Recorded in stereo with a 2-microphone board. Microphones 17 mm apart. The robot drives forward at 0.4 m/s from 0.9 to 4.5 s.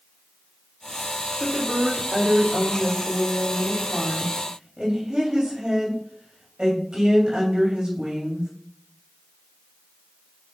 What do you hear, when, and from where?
1.4 s a woman speaking: 75° right (ahead or behind), 2.5 m; by 8.5 s 55° right (ahead or behind), 3 m